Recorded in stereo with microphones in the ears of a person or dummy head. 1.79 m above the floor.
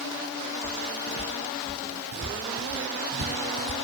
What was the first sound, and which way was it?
Footsteps, 15° right (ahead or behind).